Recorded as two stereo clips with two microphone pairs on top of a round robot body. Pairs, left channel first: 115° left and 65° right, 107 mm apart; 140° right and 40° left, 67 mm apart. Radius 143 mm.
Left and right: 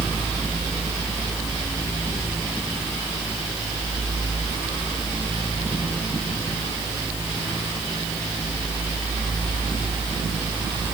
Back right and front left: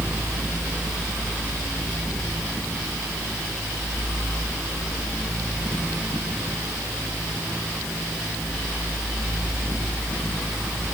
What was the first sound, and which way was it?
Only background noise.